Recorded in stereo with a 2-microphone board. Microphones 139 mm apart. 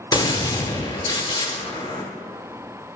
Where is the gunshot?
30° left (ahead or behind), 0.9 m.